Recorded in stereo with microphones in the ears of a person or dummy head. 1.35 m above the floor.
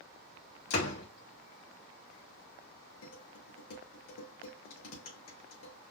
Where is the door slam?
70° left (ahead or behind), 1.9 m.